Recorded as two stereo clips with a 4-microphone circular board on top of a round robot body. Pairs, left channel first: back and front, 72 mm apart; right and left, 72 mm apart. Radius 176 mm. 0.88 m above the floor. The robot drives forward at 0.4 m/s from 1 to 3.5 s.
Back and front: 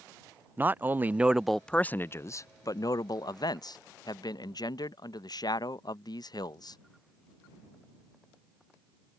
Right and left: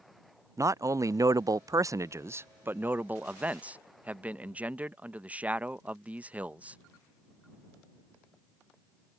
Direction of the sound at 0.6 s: 60° left.